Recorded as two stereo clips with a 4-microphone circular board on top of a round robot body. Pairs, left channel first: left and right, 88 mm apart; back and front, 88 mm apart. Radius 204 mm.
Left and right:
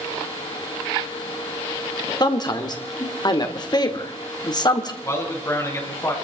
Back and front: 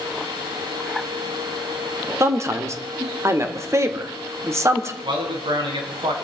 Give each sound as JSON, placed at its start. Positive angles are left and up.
{"t": 2.2, "sound": "a man speaking", "azimuth_deg": 55, "distance_m": 2.0}
{"t": 5.0, "sound": "a man speaking", "azimuth_deg": 30, "distance_m": 5.0}